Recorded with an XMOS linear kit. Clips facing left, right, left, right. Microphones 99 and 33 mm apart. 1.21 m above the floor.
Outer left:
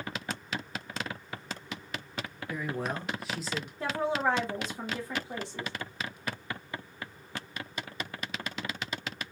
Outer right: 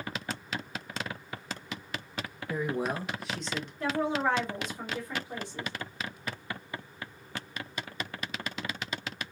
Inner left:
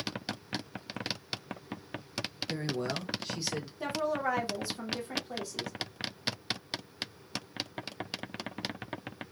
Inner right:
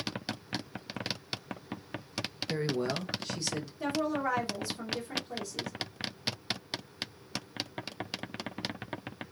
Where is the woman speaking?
25° left (ahead or behind), 1.2 m.